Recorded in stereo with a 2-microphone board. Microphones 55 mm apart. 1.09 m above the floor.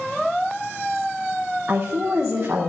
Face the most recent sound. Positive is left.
turn(degrees=-40)  # may be behind; listen again after turning